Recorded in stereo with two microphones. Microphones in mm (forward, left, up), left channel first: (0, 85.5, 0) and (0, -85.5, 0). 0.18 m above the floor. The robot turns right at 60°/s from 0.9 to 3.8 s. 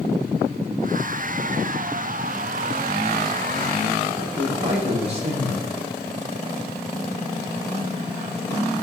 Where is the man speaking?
40° right (ahead or behind), 8.5 m.